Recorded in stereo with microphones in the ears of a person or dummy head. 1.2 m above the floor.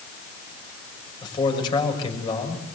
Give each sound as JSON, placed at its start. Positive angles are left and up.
{"t": 1.2, "sound": "a man speaking", "side_deg": 25, "distance_m": 6.0}